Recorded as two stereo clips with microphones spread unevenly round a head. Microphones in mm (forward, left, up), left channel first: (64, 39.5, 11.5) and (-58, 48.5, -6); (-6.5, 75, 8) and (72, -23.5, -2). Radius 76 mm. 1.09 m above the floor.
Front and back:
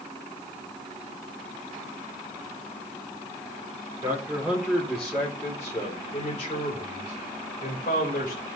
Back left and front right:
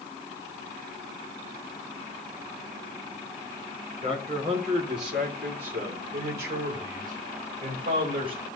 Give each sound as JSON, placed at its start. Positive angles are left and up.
{"t": 4.0, "sound": "a man speaking", "azimuth_deg": -110, "distance_m": 3.0}